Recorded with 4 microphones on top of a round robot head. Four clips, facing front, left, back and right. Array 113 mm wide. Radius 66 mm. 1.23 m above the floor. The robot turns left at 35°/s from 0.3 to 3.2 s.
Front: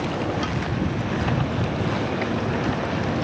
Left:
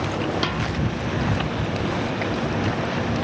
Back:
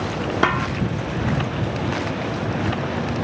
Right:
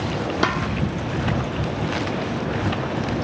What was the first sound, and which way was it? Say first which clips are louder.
A snare drum: right 3 dB, back 7 dB; 155° right.